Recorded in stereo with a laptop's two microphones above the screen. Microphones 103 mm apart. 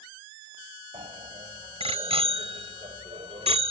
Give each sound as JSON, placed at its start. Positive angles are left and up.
{"t": 0.9, "sound": "a bicycle bell", "side_deg": -75}